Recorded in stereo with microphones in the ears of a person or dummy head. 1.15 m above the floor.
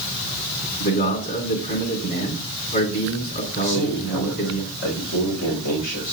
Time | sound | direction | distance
0.8 | a man speaking | 50° left (ahead or behind) | 3.5 m
3.6 | a man speaking | 85° left | 4 m